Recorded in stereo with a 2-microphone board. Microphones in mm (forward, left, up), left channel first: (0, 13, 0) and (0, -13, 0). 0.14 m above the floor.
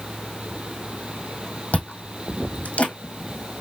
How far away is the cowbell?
I don't hear a cowbell.